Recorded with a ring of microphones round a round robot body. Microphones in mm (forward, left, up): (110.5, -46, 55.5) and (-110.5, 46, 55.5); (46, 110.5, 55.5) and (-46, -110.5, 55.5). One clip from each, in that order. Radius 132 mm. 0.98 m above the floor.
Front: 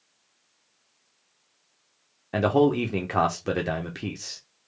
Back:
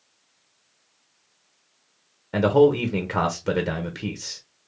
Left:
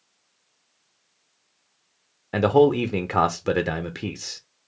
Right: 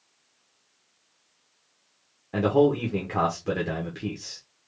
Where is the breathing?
No breathing in this recording.